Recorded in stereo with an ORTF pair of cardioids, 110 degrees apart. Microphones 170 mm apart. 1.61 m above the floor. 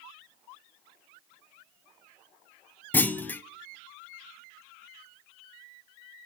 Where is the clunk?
10° left, 0.7 m.